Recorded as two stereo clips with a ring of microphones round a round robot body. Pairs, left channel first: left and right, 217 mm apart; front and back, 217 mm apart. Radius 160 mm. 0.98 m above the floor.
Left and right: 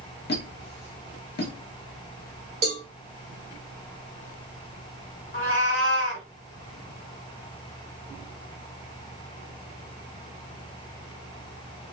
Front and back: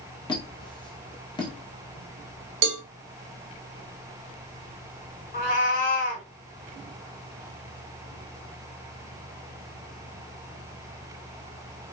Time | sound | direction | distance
0.3 | a squeak | 65° left | 0.7 m
2.6 | a cowbell | 160° right | 0.5 m
5.3 | a cat meowing | 40° left | 1.5 m